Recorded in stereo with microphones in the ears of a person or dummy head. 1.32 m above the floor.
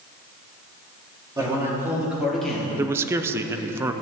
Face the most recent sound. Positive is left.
turn(degrees=-15)  # may be behind; listen again after turning